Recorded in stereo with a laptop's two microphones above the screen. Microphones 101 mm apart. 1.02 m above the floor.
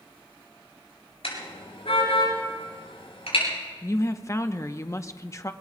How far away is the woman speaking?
About 0.8 m.